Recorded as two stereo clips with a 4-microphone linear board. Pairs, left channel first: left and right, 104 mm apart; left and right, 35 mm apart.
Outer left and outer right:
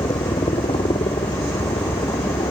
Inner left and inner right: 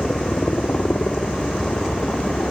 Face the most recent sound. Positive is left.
turn(degrees=70)  # may be behind; listen again after turning